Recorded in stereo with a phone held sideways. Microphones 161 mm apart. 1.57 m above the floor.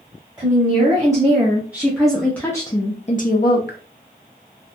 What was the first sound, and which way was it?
A woman speaking, 25° right (ahead or behind).